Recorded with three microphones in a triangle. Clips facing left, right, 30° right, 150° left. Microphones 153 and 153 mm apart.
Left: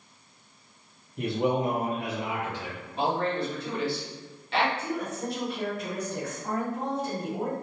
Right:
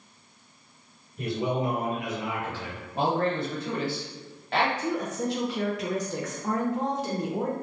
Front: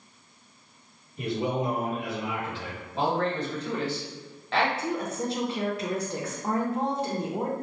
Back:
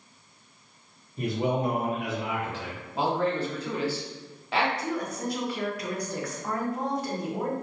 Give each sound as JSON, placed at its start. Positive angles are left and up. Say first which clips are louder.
{"t": 1.2, "sound": "a man speaking", "louder": "left 2 dB, back 1 dB", "azimuth_deg": 100, "distance_m": 0.7}
{"t": 3.0, "sound": "a man speaking", "louder": "right 2 dB, even", "azimuth_deg": -130, "distance_m": 1.0}
{"t": 4.8, "sound": "a woman speaking", "louder": "right 3 dB, front 1 dB", "azimuth_deg": -95, "distance_m": 0.5}